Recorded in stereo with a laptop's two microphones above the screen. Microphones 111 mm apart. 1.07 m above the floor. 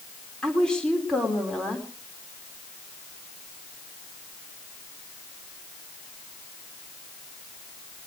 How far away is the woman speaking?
About 3 m.